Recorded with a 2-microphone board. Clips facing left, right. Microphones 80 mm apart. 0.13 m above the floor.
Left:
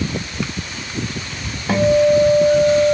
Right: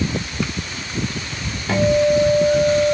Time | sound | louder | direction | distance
1.7 | a guitar | left 3 dB | 15° left (ahead or behind) | 5.5 m